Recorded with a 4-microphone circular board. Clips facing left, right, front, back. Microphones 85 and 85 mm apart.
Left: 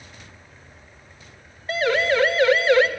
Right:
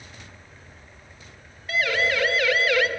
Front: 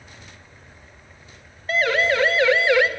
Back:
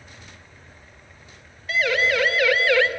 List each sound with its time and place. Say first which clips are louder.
1.7 s a siren: left 4 dB, front 2 dB; 40° left, 3 m; by 2.9 s 65° left, 1.7 m